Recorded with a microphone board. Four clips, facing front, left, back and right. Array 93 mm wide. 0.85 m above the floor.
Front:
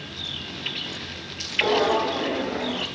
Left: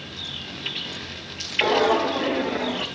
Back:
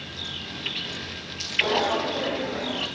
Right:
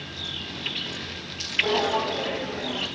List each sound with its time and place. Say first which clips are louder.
1.6 s footsteps: left 5 dB, front 3 dB; 70° left, 6 m